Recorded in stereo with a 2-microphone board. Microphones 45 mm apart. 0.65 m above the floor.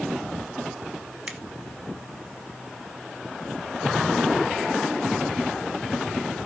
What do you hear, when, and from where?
1.3 s a finger snap: 25° right (ahead or behind), 1.4 m